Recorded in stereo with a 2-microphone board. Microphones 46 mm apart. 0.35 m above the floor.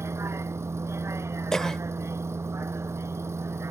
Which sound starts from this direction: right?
A vehicle, at 0.0 s.